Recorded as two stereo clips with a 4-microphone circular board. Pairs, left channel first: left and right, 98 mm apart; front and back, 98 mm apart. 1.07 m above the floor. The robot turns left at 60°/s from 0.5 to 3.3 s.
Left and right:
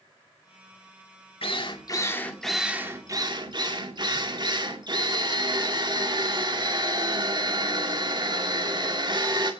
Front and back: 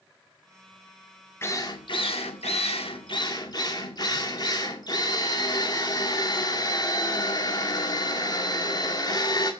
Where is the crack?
No crack in this recording.